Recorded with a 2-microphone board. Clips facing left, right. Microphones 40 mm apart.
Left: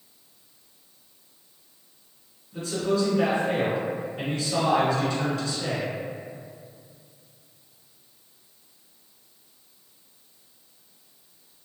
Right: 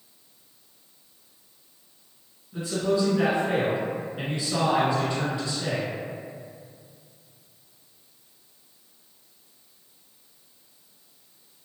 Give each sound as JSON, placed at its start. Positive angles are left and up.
{"t": 2.5, "sound": "a man speaking", "side_deg": -20, "distance_m": 1.5}